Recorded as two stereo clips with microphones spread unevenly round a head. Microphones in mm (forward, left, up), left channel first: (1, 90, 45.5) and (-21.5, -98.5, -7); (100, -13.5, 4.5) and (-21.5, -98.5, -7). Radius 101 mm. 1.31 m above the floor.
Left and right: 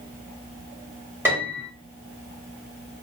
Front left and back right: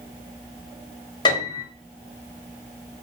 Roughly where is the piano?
Ahead.